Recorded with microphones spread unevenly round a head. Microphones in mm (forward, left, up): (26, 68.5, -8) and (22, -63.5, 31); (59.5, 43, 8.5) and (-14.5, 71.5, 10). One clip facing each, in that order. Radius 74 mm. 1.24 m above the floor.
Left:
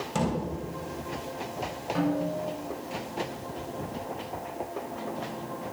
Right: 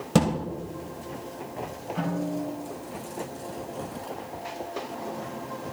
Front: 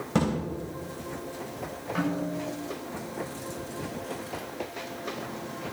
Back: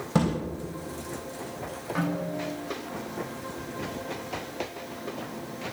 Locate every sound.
0.1 s a thud: 115° right, 3 m
1.9 s a snare drum: 70° left, 6.5 m